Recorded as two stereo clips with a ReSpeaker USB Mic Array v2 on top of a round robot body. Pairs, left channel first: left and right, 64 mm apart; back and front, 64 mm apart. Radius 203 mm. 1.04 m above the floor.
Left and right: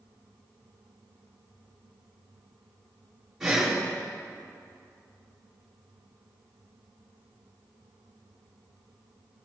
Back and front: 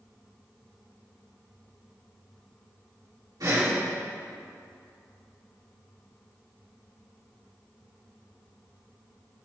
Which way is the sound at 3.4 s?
10° right.